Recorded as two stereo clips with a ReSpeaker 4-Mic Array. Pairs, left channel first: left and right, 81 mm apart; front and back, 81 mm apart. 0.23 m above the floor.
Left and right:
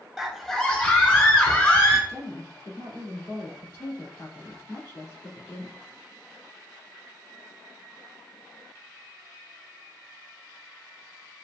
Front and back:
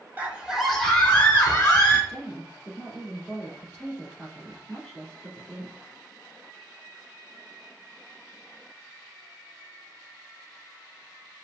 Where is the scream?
170° right, 1.0 m; by 2.0 s 45° left, 1.7 m.